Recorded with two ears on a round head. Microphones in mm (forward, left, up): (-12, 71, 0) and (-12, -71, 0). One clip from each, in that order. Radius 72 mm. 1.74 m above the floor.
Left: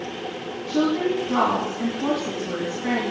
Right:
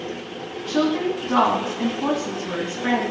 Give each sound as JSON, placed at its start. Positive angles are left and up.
{"t": 0.7, "sound": "a woman speaking", "side_deg": -35, "distance_m": 3.0}